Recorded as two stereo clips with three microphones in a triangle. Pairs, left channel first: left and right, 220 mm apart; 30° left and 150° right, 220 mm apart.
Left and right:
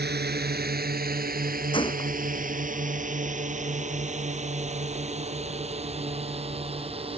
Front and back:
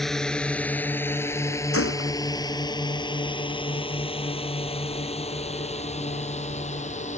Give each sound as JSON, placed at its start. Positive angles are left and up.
{"t": 0.0, "sound": "a drone", "azimuth_deg": -60}
{"t": 1.7, "sound": "a gunshot", "azimuth_deg": 20}